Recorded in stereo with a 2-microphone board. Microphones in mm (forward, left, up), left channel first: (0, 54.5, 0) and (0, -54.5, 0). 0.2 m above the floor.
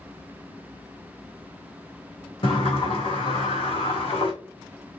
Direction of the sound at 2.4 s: 55° left (ahead or behind).